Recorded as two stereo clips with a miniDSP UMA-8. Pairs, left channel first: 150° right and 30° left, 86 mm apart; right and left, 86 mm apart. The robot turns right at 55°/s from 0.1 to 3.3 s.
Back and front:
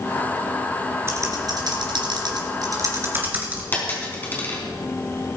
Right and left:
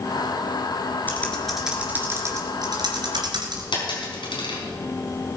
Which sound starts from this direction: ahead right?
Typing on a keyboard, at 1.1 s.